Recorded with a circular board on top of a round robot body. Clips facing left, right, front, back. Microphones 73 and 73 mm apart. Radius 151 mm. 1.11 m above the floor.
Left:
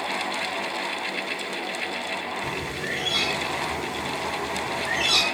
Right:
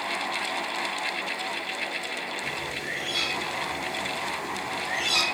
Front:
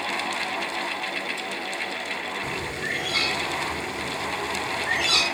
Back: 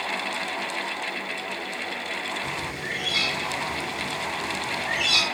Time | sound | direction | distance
2.4 | a bird | 55° left | 3 m